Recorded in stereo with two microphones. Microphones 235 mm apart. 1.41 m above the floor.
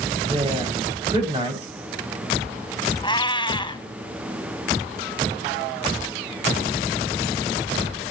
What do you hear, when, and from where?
0.3 s a woman speaking: 25° right (ahead or behind), 7.5 m
3.0 s a cat meowing: 20° left (ahead or behind), 1.5 m